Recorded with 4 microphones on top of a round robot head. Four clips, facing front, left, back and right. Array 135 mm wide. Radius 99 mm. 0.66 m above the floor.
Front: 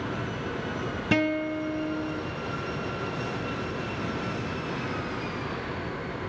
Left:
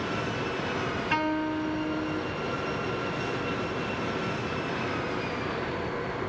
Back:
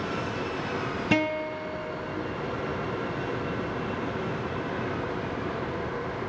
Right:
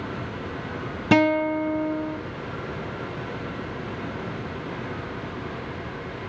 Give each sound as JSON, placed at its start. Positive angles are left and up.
{"t": 1.1, "sound": "a guitar", "azimuth_deg": -90, "distance_m": 0.8}